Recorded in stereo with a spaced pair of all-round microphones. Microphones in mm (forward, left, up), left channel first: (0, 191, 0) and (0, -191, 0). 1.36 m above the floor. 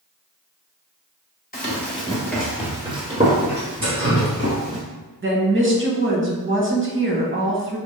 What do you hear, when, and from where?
1.5 s running footsteps: 20° left (ahead or behind), 1.4 m; by 4.8 s 45° right (ahead or behind), 2 m
3.8 s dripping: 65° right (ahead or behind), 1.8 m
5.2 s a woman speaking: 30° right (ahead or behind), 0.9 m